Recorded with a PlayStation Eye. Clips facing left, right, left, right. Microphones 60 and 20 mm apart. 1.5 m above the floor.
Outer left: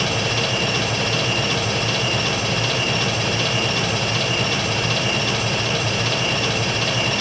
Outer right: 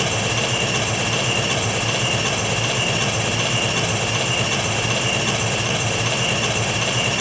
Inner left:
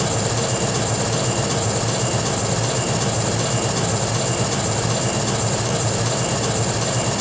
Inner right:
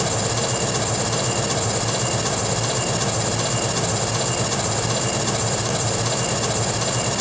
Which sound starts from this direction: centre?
An engine running, at 0.0 s.